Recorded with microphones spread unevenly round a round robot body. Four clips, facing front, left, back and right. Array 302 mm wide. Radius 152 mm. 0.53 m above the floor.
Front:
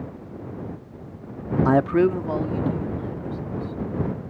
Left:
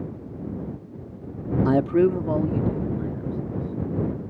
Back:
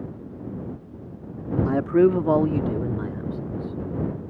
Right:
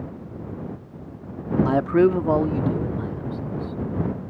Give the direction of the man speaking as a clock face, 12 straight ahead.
10 o'clock.